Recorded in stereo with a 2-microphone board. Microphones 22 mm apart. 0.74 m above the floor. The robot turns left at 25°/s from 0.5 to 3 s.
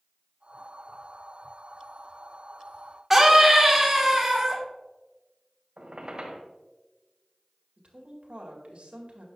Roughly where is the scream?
Centre.